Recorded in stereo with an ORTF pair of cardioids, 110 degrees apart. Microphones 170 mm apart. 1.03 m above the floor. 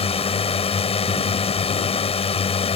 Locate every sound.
0.0 s a drone: 35° left